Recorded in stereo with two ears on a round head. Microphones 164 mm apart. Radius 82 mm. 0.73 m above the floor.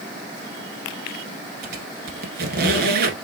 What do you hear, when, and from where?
1.6 s a squeak: 60° right (ahead or behind), 1.2 m